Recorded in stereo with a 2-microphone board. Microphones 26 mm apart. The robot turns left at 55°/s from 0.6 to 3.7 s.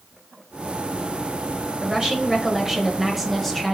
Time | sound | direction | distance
1.8 | a woman speaking | 30° right (ahead or behind) | 1.0 m